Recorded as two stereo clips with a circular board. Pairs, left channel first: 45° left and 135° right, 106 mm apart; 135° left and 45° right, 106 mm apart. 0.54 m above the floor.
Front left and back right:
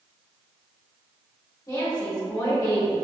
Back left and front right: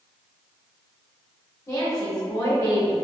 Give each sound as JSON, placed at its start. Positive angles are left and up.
{"t": 1.7, "sound": "a woman speaking", "azimuth_deg": 85, "distance_m": 1.4}